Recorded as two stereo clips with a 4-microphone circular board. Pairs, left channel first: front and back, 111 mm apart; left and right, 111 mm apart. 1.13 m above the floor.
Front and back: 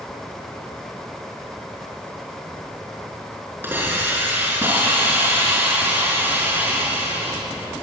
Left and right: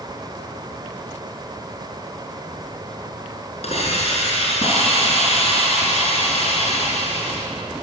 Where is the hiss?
110° left, 5.5 m.